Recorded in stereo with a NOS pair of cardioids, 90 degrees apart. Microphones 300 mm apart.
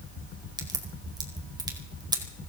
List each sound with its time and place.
0.6 s a crack: 15° right, 4.5 m